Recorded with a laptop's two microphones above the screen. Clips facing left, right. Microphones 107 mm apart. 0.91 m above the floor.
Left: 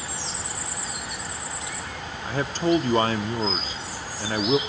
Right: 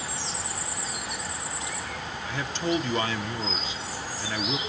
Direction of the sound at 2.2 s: 40° left (ahead or behind).